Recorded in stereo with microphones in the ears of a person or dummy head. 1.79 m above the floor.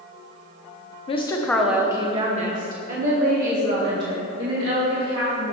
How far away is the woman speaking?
About 0.6 m.